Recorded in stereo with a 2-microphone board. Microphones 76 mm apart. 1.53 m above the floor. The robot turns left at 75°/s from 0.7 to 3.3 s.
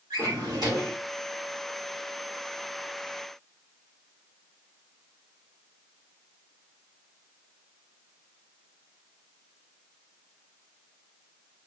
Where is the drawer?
70° right (ahead or behind), 1.5 m; by 1.0 s 60° right (ahead or behind), 1.5 m.